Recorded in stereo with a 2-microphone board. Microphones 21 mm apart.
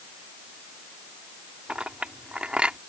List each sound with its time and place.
1.7 s a clink: 55° right (ahead or behind)